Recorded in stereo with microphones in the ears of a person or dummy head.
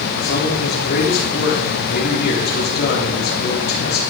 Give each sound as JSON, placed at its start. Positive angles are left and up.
{"t": 0.2, "sound": "a man speaking", "side_deg": 55, "distance_m": 4.0}